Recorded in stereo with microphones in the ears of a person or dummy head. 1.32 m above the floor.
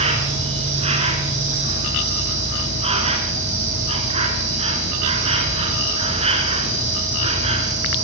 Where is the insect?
35° right (ahead or behind), 3 m.